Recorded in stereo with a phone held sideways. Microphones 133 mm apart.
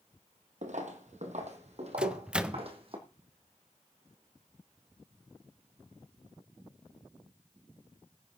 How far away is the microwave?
About 0.5 m.